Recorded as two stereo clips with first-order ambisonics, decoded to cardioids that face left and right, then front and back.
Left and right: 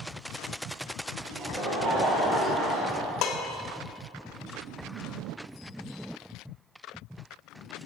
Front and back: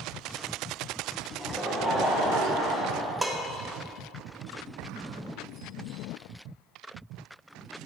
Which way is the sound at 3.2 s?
95° left.